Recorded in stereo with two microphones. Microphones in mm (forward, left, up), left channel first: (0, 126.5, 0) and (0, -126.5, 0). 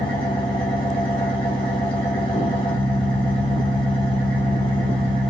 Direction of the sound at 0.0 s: 10° left (ahead or behind).